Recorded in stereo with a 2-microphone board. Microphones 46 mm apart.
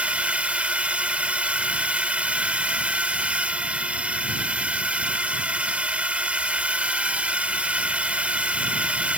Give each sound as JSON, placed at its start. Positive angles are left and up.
{"t": 0.0, "sound": "a drone", "side_deg": -30}